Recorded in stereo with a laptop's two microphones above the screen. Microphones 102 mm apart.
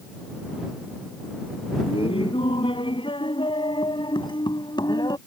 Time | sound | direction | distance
1.9 | laughter | 65° left (ahead or behind) | ?